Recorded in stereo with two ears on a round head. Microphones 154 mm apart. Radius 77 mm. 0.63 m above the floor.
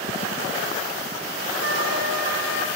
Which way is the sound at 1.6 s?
55° left (ahead or behind).